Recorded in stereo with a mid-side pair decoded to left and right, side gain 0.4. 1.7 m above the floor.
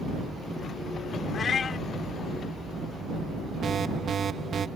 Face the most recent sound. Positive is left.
turn(degrees=-55)